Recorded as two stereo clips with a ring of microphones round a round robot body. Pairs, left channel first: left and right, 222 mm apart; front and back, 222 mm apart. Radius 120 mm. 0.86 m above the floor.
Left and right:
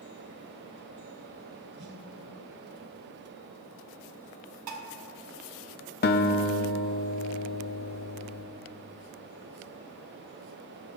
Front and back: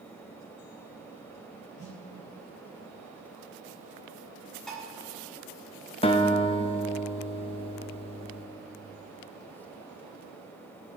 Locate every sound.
1.8 s a snare drum: 60° right, 1.9 m
4.7 s dishes clattering: 90° right, 1.2 m
6.0 s a guitar: 60° left, 0.7 m